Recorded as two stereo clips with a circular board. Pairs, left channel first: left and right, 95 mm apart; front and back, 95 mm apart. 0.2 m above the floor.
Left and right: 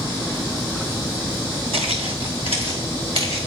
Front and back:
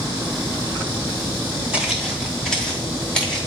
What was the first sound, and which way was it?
Footsteps, 100° right.